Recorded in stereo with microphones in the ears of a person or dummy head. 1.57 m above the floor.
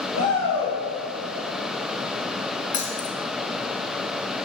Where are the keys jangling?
45° left (ahead or behind), 0.9 m.